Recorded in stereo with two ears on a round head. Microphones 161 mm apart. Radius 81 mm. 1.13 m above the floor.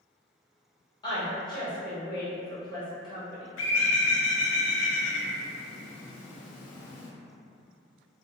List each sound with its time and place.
1.0 s a woman speaking: 25° left (ahead or behind), 1.1 m
3.6 s a bird: 80° left, 0.5 m